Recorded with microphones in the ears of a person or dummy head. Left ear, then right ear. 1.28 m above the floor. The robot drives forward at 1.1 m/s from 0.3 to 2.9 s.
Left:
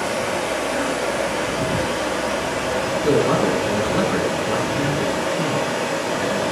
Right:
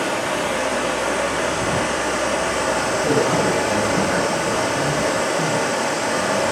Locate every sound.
0.0 s running water: 35° right (ahead or behind), 8.5 m; by 6.5 s 50° right (ahead or behind), 6.5 m
3.0 s a man speaking: 15° left (ahead or behind), 9 m